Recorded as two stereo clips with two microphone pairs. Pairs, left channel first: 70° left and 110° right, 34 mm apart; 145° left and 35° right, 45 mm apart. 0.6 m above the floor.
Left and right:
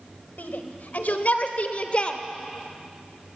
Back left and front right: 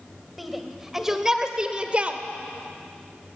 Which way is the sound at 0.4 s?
55° left.